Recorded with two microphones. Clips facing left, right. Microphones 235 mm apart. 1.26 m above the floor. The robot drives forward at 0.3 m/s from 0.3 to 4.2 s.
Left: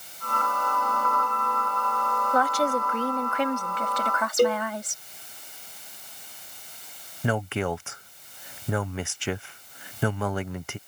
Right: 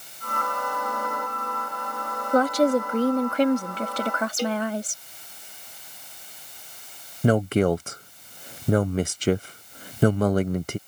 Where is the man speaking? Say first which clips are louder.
Right 8 dB; 40° right (ahead or behind).